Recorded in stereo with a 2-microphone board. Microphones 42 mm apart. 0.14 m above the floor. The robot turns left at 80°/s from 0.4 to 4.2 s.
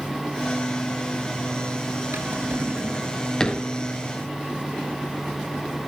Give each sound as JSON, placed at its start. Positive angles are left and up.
{"t": 2.1, "sound": "a drawer", "side_deg": -65, "distance_m": 0.8}